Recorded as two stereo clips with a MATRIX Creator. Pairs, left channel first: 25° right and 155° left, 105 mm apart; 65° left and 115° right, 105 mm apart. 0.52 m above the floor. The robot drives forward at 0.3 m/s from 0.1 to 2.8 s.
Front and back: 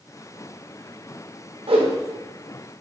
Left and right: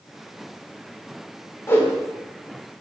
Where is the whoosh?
130° left, 0.5 m; by 1.9 s 140° left, 0.6 m.